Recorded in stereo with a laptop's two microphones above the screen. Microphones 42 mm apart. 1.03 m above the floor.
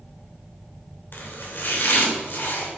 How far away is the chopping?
About 2.5 m.